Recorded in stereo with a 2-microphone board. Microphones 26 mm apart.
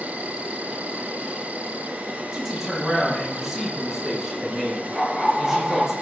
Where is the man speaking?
15° right (ahead or behind), 5.5 m.